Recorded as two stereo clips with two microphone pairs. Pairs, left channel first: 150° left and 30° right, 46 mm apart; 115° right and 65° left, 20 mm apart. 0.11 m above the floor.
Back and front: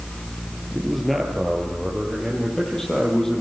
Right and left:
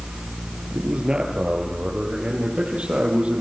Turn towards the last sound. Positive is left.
turn(degrees=75)